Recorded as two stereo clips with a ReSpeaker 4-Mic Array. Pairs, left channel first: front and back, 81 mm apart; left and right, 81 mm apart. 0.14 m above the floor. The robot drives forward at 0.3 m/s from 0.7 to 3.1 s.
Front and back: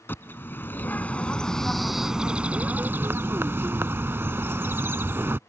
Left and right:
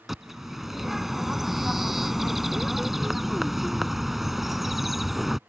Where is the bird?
5° right; by 5.4 s 175° right.